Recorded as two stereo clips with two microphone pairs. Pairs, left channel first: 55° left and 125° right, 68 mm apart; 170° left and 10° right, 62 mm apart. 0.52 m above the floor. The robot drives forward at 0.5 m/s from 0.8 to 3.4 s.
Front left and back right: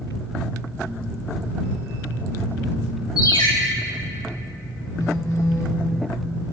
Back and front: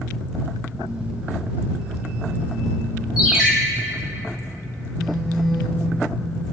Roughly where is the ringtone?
Left.